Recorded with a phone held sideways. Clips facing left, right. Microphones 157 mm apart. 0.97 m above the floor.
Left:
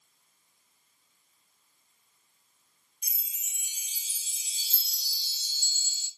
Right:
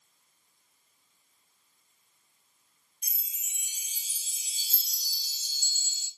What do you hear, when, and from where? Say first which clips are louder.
3.0 s a chime: even; 45° right (ahead or behind), 0.9 m